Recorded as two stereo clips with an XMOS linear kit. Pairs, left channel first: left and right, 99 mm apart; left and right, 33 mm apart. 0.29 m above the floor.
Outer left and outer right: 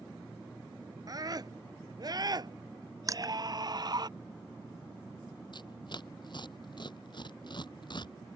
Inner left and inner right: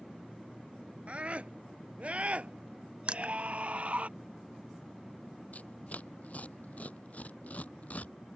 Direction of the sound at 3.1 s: 35° right (ahead or behind).